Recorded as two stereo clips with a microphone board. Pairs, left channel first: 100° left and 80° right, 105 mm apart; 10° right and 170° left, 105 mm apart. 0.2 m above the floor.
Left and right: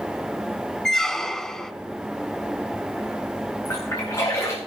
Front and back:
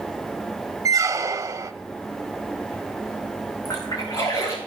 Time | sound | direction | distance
0.8 | a squeak | straight behind | 0.6 m
3.6 | a splash | 40° left | 5 m